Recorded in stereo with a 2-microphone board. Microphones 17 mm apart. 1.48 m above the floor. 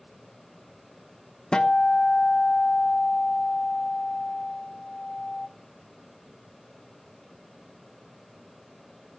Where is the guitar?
50° left (ahead or behind), 1.0 m.